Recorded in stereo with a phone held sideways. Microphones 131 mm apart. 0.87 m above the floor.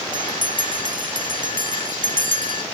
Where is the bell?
85° right, 1.4 m.